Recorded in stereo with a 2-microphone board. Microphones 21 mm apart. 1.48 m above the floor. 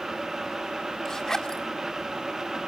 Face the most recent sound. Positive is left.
turn(degrees=25)  # may be behind; listen again after turning